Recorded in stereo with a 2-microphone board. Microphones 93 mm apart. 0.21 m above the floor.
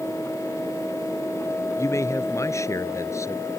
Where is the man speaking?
35° left (ahead or behind).